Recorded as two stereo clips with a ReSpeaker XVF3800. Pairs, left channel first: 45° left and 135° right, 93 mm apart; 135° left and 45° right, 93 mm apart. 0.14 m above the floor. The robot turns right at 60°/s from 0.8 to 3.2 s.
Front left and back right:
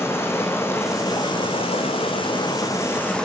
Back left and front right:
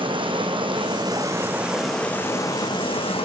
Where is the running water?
20° right, 3 m; by 3.2 s 125° left, 3 m.